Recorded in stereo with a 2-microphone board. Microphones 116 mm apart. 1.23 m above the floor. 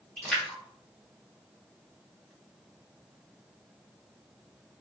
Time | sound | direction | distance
0.2 | a splash | 5° left (ahead or behind) | 1.2 m